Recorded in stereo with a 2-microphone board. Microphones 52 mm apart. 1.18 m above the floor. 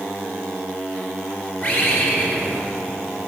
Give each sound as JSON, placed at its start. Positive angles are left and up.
{"t": 1.6, "sound": "a bird", "side_deg": 45, "distance_m": 2.5}